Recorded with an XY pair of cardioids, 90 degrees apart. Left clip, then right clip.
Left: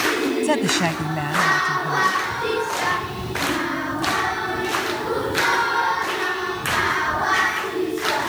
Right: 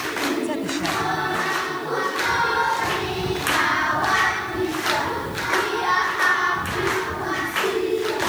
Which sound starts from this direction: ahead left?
A woman speaking, at 0.4 s.